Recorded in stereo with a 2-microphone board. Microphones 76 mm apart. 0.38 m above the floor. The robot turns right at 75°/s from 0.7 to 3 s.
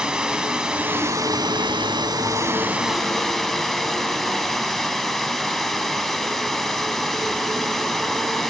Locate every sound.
0.0 s running water: 165° right, 1.1 m; by 8.5 s 5° left, 1.1 m